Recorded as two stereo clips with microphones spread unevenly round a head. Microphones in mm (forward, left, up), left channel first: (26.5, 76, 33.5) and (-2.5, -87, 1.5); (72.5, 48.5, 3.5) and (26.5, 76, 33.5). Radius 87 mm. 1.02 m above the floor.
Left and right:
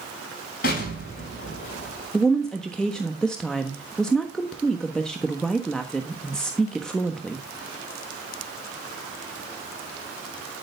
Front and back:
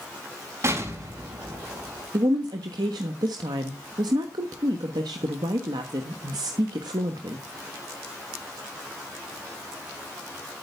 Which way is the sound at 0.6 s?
120° left.